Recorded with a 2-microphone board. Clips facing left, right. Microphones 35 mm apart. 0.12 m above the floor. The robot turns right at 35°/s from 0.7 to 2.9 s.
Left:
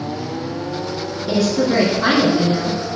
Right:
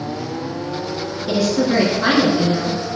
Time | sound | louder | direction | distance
1.3 | a woman speaking | even | 25° right | 2.0 m